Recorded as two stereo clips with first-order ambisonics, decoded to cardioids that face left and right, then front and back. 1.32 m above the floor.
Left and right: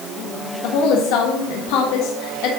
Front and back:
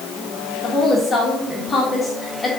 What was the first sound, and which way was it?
A woman speaking, 80° left.